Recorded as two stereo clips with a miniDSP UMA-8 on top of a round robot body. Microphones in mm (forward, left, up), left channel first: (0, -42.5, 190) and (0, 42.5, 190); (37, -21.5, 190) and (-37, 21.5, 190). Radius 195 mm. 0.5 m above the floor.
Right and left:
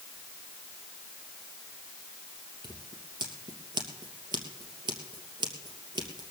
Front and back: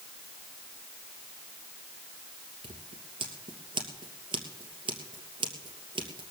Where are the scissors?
125° left, 2.5 m.